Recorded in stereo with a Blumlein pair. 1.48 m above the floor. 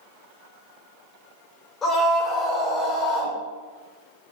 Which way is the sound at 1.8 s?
15° left.